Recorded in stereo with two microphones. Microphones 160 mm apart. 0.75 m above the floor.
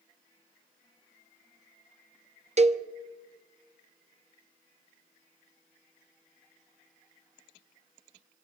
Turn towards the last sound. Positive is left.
turn(degrees=-45)  # may be behind; listen again after turning